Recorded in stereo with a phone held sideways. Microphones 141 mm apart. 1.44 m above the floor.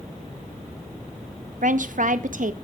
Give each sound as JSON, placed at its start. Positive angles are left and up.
{"t": 1.6, "sound": "a woman speaking", "side_deg": -70, "distance_m": 0.7}